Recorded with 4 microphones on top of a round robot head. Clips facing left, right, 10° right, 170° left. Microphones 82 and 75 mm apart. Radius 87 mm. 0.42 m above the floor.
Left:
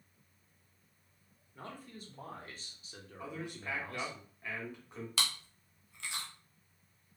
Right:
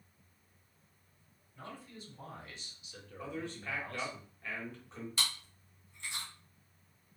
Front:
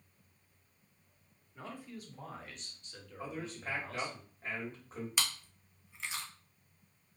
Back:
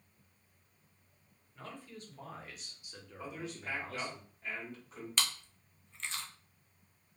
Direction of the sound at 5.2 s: 75° left.